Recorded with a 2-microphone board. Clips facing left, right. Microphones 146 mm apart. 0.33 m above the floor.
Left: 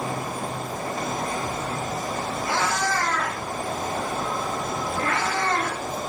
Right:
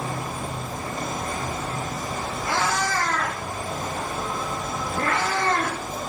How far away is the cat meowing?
About 4 m.